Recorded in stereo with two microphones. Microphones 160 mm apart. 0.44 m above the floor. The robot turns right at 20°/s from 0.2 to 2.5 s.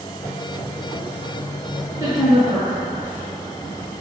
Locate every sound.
2.0 s a woman speaking: 20° right (ahead or behind), 1.5 m; by 2.7 s 30° right (ahead or behind), 1.5 m